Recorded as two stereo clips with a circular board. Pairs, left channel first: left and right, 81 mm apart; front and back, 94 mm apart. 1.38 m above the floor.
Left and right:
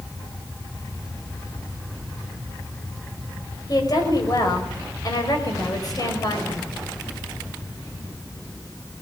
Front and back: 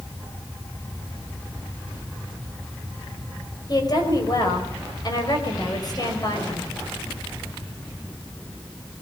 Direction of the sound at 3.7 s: 45° left.